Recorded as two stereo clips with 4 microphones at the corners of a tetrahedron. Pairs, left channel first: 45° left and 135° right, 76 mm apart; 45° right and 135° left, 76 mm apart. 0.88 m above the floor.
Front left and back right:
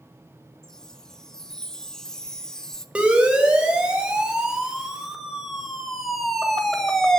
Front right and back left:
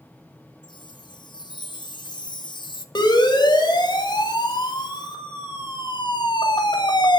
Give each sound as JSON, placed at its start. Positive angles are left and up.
{"t": 0.6, "sound": "a chime", "azimuth_deg": -35, "distance_m": 1.2}
{"t": 3.0, "sound": "a siren", "azimuth_deg": -55, "distance_m": 4.0}